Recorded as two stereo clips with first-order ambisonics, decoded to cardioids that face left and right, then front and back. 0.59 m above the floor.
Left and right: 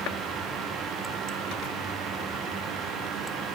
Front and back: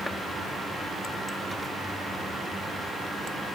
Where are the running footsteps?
No running footsteps in this recording.